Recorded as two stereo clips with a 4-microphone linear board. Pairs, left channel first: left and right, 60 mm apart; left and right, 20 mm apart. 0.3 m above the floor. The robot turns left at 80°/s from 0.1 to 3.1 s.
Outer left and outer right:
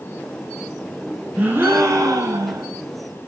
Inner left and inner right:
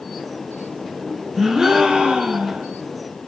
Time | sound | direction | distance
1.4 | a gasp | 20° right | 4 m